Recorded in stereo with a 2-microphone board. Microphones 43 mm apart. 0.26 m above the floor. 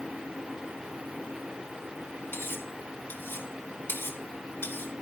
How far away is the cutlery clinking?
About 2.0 m.